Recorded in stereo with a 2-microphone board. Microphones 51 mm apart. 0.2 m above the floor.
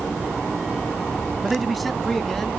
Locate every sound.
1.4 s a man speaking: 5° right (ahead or behind), 1.0 m; by 2.5 s 5° left (ahead or behind), 2 m